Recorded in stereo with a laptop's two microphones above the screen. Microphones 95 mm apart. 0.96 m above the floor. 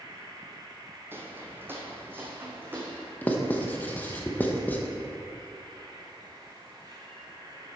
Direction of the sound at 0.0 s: 45° right (ahead or behind).